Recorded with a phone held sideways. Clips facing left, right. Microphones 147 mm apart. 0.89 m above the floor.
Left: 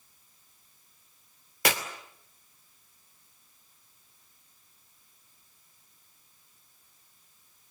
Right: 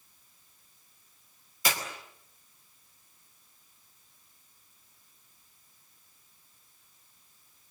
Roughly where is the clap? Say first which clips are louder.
Left 4 dB; left.